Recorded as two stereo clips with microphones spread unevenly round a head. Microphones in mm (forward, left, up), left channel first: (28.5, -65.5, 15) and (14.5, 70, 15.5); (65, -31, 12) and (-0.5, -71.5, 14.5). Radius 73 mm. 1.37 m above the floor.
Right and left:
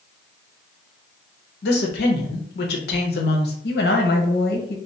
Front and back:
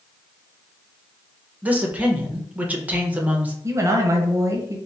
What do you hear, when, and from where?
1.6 s a woman speaking: 80° right, 0.9 m
3.6 s a woman speaking: 95° right, 0.9 m